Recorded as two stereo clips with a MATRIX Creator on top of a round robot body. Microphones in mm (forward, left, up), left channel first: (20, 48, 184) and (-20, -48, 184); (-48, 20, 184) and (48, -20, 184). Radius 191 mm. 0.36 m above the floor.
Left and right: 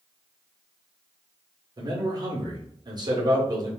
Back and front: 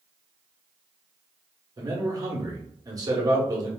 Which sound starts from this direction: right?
A man speaking, at 1.8 s.